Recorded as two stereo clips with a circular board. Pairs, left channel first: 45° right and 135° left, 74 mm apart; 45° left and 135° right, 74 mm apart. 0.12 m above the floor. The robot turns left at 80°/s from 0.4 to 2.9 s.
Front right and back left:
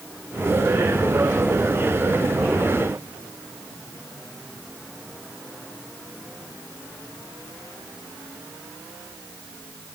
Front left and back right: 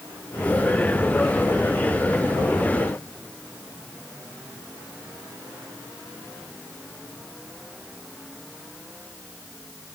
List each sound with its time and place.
Only background noise.